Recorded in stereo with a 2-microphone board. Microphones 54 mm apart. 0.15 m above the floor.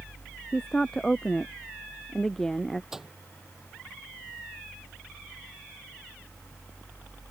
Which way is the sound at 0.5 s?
10° left (ahead or behind).